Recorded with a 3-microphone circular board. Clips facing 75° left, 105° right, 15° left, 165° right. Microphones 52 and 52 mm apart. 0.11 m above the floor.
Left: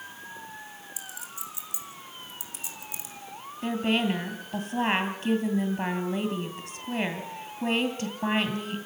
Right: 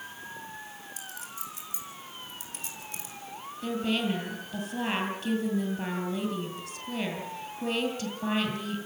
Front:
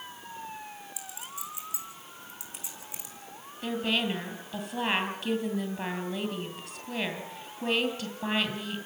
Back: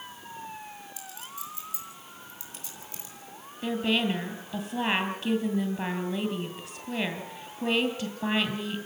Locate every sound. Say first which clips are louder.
1.0 s a clink: even, even; 60° right, 4 m
3.6 s a woman speaking: left 3 dB, back 2 dB; 130° left, 2.5 m